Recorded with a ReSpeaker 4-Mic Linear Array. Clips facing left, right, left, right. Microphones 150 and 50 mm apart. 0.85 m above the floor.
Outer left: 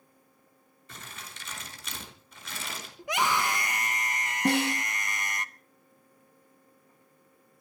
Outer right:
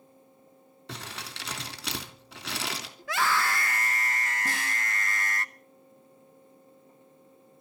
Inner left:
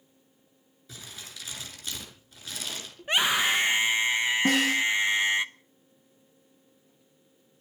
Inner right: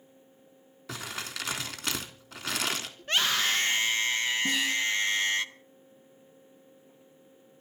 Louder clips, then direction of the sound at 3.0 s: Even, inner left 3 dB; 15° left (ahead or behind).